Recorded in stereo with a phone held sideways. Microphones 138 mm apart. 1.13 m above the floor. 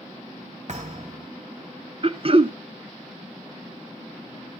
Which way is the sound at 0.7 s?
60° right (ahead or behind).